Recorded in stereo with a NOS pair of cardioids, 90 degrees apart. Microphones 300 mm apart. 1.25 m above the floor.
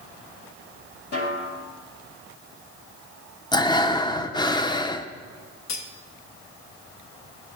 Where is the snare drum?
50° left, 2.5 m.